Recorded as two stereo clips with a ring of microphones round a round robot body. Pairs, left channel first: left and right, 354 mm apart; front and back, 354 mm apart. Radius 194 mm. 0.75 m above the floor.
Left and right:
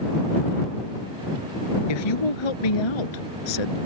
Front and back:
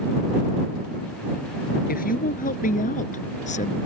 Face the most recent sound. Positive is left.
turn(degrees=75)